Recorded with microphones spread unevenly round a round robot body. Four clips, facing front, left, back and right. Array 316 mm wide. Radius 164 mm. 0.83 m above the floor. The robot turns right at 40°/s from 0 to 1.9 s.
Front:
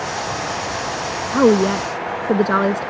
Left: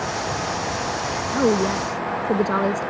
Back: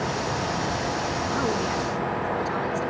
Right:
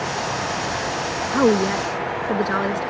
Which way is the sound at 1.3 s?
15° right.